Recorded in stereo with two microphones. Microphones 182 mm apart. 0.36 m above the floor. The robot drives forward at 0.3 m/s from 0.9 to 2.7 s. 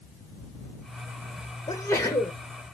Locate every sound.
1.7 s a sneeze: 20° left (ahead or behind), 0.8 m; by 2.4 s 15° left (ahead or behind), 0.9 m